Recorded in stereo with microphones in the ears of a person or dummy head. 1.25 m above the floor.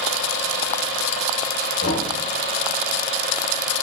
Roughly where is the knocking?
Left.